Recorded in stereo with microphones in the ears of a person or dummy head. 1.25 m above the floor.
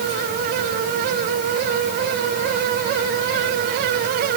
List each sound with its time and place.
Only background noise.